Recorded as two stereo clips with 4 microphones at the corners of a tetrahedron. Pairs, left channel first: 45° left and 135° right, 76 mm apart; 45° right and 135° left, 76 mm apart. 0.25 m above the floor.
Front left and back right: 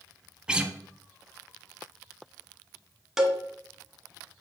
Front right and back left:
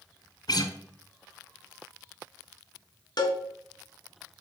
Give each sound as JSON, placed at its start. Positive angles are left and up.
{"t": 0.5, "sound": "a guitar", "azimuth_deg": -60, "distance_m": 1.1}
{"t": 3.2, "sound": "a cowbell", "azimuth_deg": -55, "distance_m": 1.7}